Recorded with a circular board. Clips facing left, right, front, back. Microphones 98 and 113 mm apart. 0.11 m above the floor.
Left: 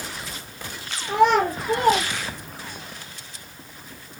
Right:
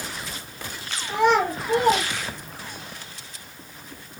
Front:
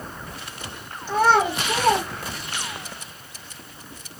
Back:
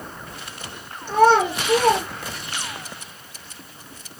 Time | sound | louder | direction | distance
1.1 | a child speaking | left 2 dB, back 3 dB | 110° left | 2 m